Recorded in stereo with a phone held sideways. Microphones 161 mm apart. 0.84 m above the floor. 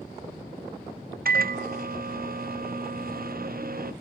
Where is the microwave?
65° right (ahead or behind), 0.5 m.